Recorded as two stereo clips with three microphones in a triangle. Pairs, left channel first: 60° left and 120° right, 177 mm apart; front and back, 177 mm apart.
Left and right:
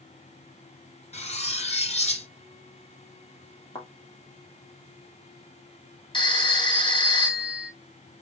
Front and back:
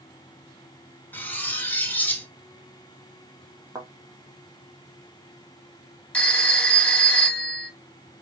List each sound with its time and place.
1.1 s cutlery clinking: 75° left, 0.9 m
3.8 s a thud: 115° left, 1.4 m
6.1 s a phone ringing: 75° left, 1.0 m